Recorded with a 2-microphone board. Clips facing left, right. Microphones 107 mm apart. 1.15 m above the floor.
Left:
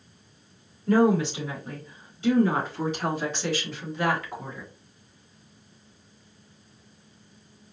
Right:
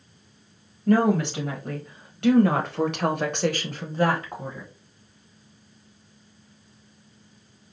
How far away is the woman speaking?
About 2.0 m.